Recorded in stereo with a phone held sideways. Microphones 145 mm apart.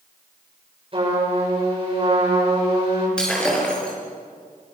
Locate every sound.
0.9 s a trumpet: 40° right (ahead or behind), 7 m
3.2 s breaking glass: 5° left (ahead or behind), 6 m